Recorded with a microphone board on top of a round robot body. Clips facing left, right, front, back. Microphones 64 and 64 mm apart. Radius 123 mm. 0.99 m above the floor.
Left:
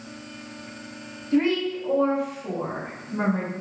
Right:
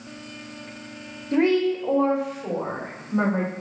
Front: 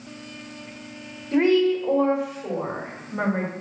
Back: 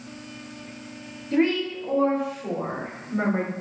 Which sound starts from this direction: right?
A woman speaking, at 1.3 s.